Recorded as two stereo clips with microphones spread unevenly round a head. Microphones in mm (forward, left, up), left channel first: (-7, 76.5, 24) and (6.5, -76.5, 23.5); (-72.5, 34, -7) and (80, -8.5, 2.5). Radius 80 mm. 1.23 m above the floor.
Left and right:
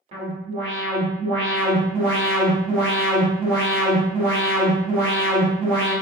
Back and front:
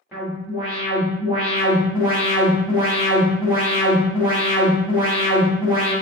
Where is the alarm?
95° right, 1.2 m.